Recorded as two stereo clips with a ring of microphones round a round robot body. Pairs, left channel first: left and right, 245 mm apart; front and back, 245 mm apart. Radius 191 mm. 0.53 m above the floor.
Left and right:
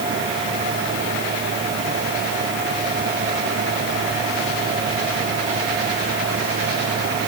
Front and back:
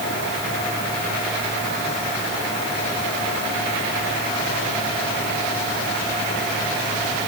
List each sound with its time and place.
Only background noise.